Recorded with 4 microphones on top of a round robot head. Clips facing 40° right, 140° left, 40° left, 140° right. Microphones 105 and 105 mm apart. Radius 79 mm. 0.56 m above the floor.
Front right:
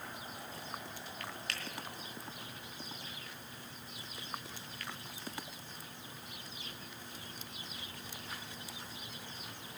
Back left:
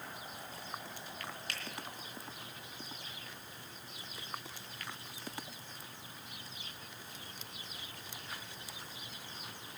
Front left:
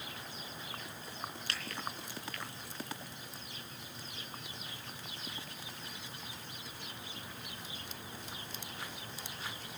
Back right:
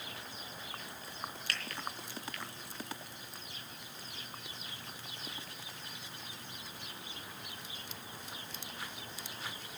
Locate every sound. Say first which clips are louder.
1.5 s a finger snap: front right 1 dB, back right 2 dB; 25° right, 3.5 m